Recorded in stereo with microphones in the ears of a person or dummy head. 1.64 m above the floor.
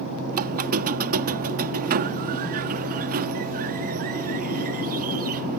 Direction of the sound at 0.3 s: 45° right (ahead or behind).